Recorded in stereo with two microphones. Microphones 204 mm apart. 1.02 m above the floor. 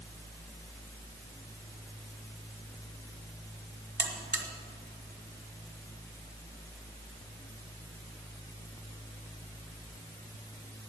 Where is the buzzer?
60° right (ahead or behind), 1.6 m.